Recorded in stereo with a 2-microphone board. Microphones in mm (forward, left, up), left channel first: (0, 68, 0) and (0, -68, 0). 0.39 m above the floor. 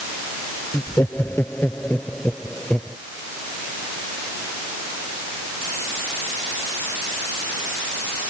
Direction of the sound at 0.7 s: 20° left (ahead or behind).